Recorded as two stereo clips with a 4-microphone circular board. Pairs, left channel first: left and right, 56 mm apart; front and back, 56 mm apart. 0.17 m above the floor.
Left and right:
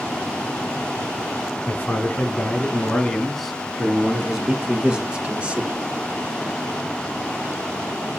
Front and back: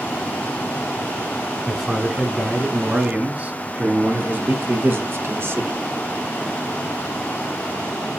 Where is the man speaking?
100° left, 1.5 m; by 5.8 s 150° right, 2 m.